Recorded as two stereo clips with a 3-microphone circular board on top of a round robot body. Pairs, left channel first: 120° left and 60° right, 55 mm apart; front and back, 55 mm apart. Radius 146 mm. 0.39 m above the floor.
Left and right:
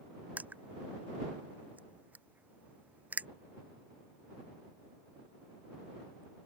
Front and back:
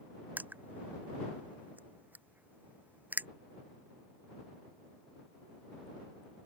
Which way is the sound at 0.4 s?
125° right.